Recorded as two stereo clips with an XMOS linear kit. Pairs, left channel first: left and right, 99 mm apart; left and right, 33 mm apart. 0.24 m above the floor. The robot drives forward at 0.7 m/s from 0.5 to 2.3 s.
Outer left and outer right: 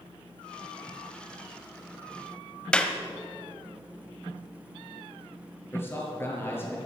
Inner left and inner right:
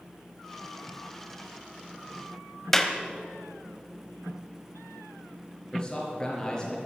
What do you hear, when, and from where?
2.7 s a clap: 10° left (ahead or behind), 1.2 m
5.7 s a man speaking: 20° left (ahead or behind), 4.5 m